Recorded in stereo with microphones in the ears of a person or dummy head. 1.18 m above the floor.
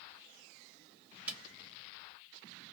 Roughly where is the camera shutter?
Centre.